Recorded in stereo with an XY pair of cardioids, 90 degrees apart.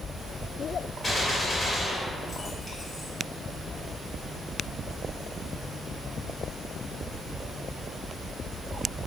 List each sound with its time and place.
1.0 s a gunshot: 30° left, 2.0 m